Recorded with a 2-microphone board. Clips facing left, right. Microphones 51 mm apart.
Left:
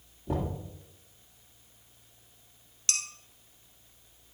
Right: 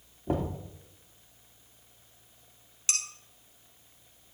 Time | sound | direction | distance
0.3 | knocking | 45° right (ahead or behind) | 2.5 m
2.9 | dishes clattering | 20° right (ahead or behind) | 1.8 m